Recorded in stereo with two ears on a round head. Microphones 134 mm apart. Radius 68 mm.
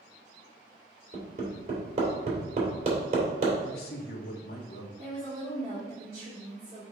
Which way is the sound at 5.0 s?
35° right (ahead or behind).